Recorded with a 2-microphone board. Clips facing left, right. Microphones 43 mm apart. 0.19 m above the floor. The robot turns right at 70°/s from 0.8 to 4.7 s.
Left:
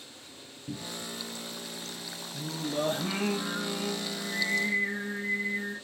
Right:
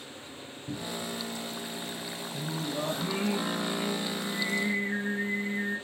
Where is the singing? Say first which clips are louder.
Left 2 dB; straight ahead, 3 m; by 5.8 s 165° left, 3 m.